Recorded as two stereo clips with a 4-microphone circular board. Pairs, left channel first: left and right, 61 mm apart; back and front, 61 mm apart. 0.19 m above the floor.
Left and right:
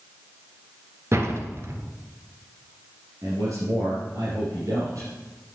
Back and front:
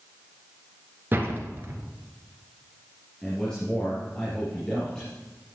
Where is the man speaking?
105° right, 3.5 m.